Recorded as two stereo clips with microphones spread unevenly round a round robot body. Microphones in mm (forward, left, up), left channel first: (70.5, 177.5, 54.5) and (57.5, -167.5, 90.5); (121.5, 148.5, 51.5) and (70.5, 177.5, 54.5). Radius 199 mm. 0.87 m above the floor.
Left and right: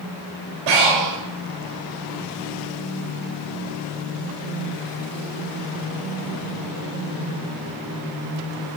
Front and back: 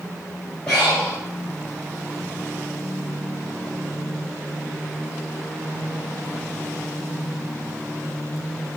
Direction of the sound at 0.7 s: 115° right.